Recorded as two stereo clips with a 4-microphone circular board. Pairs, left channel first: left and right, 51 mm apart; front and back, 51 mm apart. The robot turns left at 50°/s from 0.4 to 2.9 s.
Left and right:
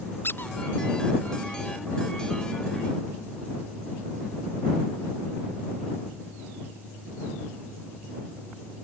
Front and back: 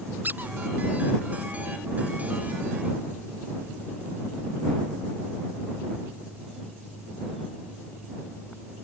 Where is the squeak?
130° left; by 0.5 s 125° left.